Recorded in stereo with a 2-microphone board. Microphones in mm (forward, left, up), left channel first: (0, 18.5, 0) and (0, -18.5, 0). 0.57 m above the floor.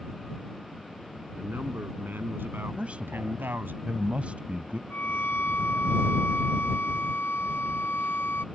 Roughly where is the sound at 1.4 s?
Right.